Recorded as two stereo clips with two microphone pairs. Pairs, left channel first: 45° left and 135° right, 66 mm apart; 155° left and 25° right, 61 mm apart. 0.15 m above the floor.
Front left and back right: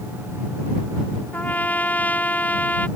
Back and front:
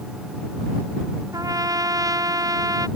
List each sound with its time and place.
1.3 s a trumpet: 20° right